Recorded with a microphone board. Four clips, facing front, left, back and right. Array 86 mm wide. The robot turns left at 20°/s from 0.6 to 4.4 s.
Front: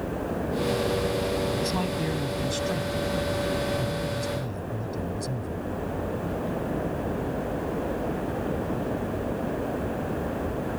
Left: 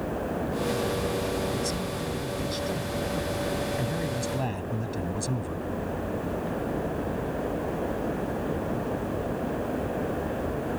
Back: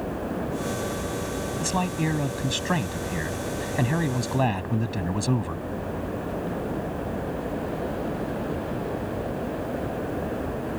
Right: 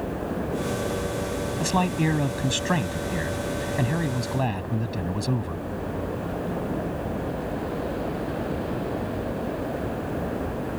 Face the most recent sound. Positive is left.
turn(degrees=-160)